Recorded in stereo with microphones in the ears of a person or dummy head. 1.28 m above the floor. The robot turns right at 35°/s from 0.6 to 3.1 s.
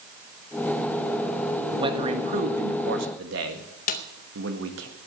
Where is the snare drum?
45° left (ahead or behind), 0.6 m.